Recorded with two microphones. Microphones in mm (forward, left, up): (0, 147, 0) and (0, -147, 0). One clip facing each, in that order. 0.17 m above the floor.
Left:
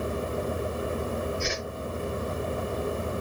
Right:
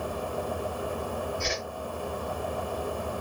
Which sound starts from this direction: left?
A whoosh, at 1.4 s.